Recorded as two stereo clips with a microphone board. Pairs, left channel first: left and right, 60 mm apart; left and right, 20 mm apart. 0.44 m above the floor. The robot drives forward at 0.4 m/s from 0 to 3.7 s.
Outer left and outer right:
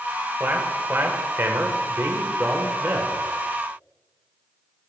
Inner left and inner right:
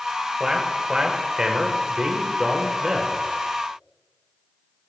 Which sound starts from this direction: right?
A man speaking, at 0.4 s.